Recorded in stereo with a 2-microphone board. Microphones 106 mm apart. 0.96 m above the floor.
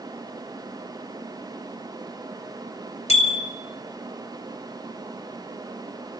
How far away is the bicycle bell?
About 2 m.